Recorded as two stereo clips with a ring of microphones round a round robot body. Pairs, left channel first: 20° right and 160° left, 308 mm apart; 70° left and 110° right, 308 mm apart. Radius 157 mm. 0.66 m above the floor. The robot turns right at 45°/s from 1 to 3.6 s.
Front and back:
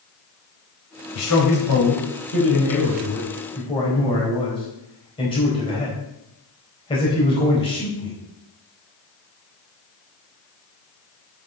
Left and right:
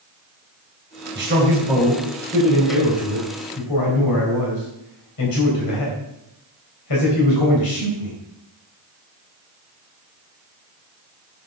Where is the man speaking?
60° right, 3.5 m; by 8.2 s 50° left, 3.5 m.